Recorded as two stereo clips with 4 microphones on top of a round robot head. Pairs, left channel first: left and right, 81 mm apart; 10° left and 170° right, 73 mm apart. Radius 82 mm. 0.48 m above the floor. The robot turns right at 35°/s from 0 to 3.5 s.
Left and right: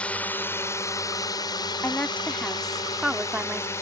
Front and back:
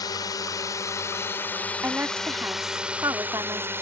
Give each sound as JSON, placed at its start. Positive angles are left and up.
{"t": 0.0, "sound": "a drone", "azimuth_deg": 15}
{"t": 1.8, "sound": "a woman speaking", "azimuth_deg": 140}